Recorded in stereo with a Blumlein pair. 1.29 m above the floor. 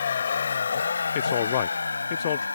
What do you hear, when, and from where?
0.0 s a vehicle: 65° left; by 2.6 s 80° left
1.1 s a man speaking: 55° left